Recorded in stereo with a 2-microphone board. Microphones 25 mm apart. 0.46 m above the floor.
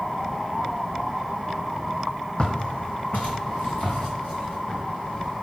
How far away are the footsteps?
About 0.8 m.